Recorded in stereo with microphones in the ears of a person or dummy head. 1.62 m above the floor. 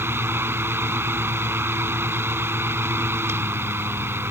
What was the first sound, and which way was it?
A fan, 10° right (ahead or behind).